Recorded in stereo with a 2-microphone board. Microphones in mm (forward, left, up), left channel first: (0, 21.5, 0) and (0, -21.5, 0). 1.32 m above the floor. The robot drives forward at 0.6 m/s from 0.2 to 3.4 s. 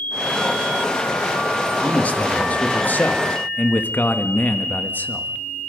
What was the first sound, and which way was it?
A man speaking, 35° left (ahead or behind).